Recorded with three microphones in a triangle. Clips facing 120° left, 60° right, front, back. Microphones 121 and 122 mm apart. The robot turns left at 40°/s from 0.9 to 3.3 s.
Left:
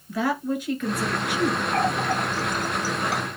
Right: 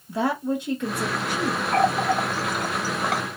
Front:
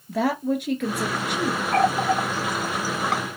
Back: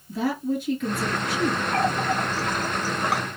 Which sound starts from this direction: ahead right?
A running tap, at 1.7 s.